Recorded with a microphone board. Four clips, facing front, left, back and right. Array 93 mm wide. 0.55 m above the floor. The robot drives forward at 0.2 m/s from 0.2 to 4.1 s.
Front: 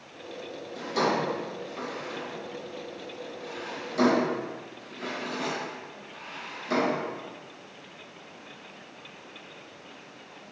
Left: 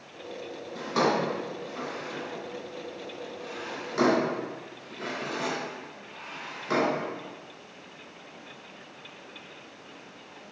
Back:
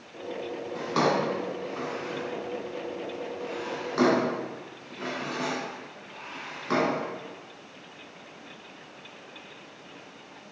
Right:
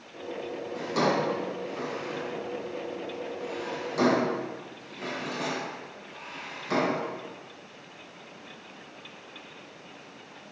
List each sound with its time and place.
0.8 s a drawer: 160° left, 2.5 m